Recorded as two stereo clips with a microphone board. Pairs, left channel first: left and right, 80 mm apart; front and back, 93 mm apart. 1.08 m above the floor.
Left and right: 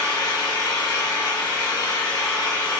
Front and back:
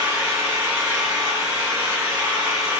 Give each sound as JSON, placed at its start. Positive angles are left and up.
{"t": 0.0, "sound": "an engine running", "azimuth_deg": 120, "distance_m": 2.0}